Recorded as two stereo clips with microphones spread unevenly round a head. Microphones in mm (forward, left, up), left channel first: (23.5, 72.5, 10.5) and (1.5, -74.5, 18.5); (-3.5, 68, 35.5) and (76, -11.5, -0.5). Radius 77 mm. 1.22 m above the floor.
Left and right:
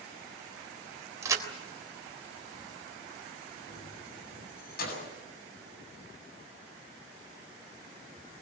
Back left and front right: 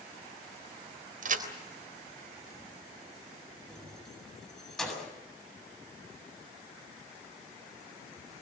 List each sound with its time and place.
1.2 s a crack: 30° right, 3.5 m
3.7 s keys jangling: 50° left, 7.5 m